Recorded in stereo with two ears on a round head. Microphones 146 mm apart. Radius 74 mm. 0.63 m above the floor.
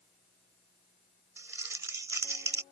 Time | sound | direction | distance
1.4 | crumpling | 20° right (ahead or behind) | ?